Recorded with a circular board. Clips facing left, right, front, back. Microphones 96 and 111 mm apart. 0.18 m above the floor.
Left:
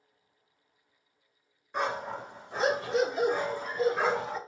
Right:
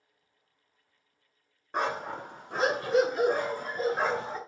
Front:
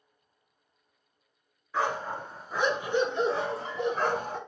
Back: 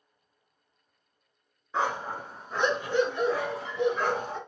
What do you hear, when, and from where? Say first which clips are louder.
1.7 s a dog barking: right 1 dB, even; 115° right, 1.0 m; by 4.4 s 35° right, 1.4 m